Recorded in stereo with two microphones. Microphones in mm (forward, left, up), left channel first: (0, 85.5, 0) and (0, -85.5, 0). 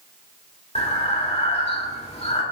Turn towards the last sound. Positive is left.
turn(degrees=35)  # may be behind; listen again after turning